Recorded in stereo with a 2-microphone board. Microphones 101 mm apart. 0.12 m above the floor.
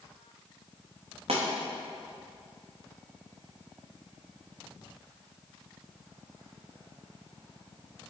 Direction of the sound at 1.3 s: 85° right.